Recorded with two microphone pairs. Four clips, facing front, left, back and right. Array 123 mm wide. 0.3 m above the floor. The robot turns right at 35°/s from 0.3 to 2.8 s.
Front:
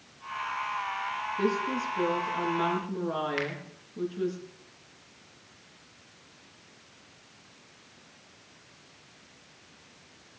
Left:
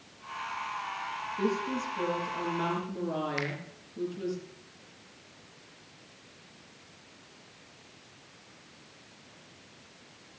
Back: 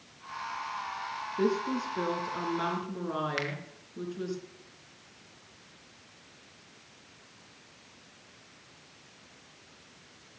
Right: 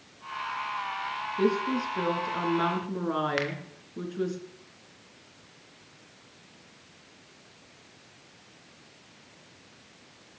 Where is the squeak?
I don't hear a squeak.